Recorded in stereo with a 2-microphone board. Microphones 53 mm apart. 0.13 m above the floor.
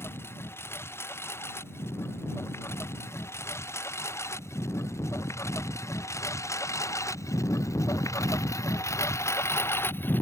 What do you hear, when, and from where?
0.0 s a lawn mower: 55° left (ahead or behind); by 10.2 s 40° left (ahead or behind)